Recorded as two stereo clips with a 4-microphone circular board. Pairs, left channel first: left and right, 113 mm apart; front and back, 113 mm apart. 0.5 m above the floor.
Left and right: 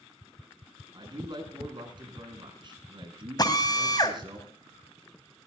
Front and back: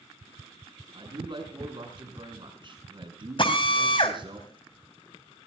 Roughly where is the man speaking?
Behind right.